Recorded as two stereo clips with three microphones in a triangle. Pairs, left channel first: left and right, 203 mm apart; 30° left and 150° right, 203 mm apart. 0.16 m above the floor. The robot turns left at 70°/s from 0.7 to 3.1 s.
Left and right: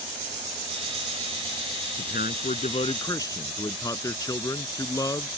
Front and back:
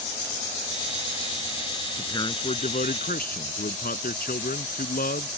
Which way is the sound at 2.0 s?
105° left.